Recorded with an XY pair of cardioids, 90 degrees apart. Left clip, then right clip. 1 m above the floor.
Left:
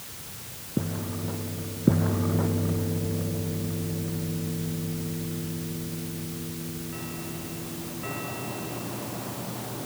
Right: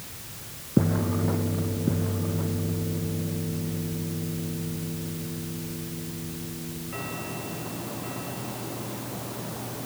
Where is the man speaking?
No man speaking in this recording.